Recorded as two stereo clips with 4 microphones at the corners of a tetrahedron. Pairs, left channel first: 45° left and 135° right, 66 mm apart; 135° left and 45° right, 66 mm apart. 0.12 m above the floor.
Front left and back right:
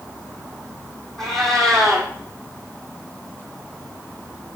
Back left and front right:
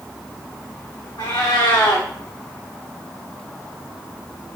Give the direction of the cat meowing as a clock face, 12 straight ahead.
8 o'clock.